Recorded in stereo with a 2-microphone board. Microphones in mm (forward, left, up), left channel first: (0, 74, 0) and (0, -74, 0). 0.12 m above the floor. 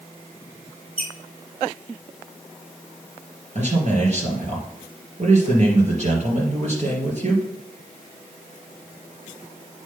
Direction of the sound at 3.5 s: 55° right (ahead or behind).